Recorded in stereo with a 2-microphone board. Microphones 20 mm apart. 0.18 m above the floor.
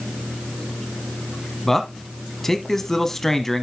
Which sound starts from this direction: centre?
A man speaking, at 1.6 s.